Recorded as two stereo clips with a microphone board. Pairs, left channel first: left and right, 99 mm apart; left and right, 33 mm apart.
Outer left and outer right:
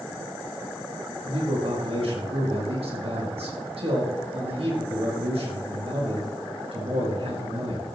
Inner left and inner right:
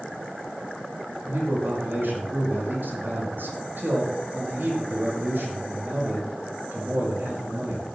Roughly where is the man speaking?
Right.